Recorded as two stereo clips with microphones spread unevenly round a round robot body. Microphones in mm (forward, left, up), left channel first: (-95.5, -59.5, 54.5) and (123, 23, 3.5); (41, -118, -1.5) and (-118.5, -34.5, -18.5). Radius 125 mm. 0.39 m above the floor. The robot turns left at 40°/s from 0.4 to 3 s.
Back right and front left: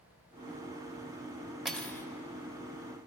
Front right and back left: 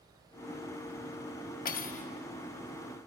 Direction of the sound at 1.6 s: 60° right.